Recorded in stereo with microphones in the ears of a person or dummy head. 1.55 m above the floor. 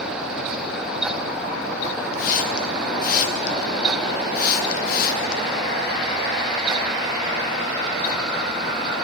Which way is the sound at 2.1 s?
50° left (ahead or behind).